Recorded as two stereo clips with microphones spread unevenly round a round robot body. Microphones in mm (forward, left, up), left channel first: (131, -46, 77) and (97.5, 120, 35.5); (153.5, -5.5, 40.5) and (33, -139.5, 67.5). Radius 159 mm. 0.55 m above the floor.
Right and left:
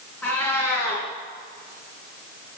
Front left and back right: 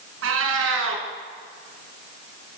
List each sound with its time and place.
0.2 s a cat meowing: 160° right, 2.5 m